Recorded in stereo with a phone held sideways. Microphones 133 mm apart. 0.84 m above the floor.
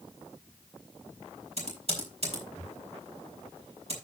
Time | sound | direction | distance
1.6 | typing on a keyboard | 50° right (ahead or behind) | 5.5 m